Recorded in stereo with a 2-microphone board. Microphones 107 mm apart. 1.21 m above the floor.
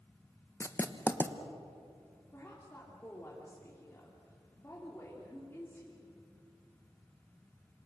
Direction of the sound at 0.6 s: 20° left (ahead or behind).